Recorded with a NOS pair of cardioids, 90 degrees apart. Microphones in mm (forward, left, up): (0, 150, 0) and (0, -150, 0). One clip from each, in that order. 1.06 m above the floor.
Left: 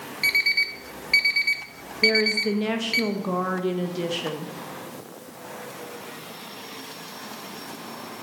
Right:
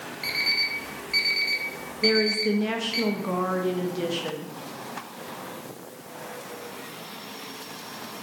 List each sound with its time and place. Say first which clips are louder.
0.2 s an alarm clock: left 4 dB; 40° left, 1.1 m
2.0 s a woman speaking: left 2 dB; 20° left, 0.9 m